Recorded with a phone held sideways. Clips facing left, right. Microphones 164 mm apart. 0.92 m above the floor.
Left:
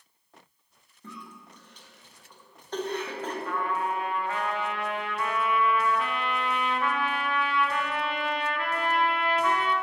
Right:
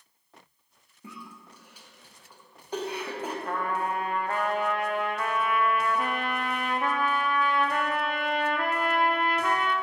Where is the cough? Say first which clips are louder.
Even; 10° right (ahead or behind), 0.9 m.